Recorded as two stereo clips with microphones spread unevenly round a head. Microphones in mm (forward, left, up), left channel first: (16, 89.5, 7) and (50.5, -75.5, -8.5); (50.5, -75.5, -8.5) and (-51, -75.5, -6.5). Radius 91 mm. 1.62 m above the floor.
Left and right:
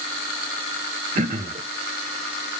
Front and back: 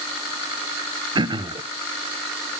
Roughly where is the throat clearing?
Behind right.